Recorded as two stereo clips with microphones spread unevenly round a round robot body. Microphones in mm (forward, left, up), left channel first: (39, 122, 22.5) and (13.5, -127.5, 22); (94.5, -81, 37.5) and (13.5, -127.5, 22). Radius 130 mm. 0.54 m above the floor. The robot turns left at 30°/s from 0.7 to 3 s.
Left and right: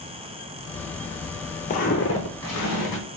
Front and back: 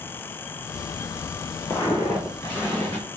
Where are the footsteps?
50° left, 0.6 m; by 3.0 s 100° left, 1.5 m.